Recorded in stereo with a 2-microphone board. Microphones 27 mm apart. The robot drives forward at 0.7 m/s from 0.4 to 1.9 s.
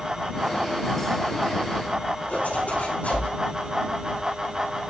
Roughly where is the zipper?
Left.